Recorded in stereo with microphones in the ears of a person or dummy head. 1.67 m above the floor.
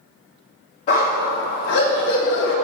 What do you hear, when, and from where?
0.9 s a dog barking: 35° left (ahead or behind), 1.6 m; by 2.5 s 60° left (ahead or behind), 1.9 m